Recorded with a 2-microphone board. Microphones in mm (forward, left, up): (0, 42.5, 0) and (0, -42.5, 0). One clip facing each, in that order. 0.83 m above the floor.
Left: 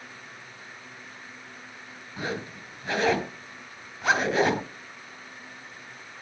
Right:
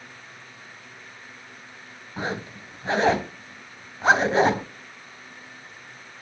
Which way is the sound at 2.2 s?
30° right (ahead or behind).